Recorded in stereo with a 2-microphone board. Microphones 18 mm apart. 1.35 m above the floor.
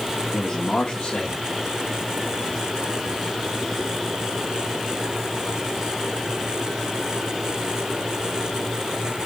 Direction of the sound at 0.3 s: 30° left (ahead or behind).